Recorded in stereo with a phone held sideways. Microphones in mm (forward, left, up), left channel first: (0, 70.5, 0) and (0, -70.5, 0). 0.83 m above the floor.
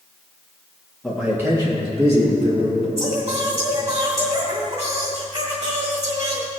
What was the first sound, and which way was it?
A man speaking, 5° left (ahead or behind).